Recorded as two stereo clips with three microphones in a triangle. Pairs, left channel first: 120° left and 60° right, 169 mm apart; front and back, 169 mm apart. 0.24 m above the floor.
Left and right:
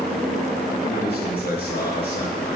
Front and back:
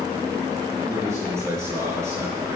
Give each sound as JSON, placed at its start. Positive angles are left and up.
{"t": 0.8, "sound": "a man speaking", "azimuth_deg": 110, "distance_m": 4.0}